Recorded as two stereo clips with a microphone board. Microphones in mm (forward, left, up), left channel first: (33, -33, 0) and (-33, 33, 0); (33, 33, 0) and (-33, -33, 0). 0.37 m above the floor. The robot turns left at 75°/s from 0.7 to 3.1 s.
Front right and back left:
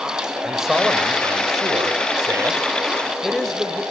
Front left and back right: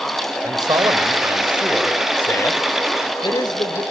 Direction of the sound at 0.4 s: 140° right.